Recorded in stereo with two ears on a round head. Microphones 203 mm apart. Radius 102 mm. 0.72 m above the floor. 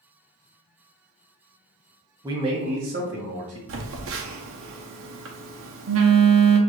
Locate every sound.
2.2 s a man speaking: 15° right (ahead or behind), 0.7 m; by 3.6 s 60° right (ahead or behind), 1.1 m
3.7 s a phone buzzing: 60° right (ahead or behind), 0.7 m